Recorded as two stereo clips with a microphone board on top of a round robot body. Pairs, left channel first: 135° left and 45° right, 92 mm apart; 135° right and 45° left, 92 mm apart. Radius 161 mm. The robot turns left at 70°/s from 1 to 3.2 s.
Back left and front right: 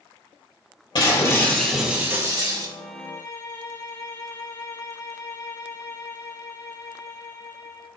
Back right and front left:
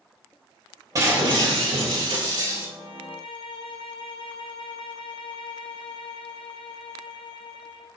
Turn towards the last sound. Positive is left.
turn(degrees=-165)